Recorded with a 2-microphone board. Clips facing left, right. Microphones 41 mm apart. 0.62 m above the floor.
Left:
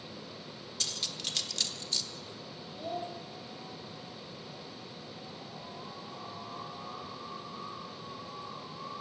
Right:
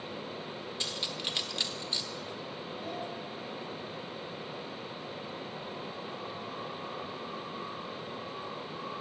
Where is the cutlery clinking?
25° right (ahead or behind), 1.0 m.